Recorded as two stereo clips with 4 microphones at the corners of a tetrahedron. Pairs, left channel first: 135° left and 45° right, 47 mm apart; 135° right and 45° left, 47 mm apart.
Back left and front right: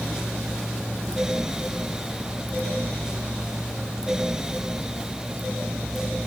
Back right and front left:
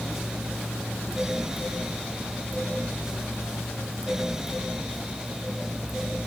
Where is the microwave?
I don't hear a microwave.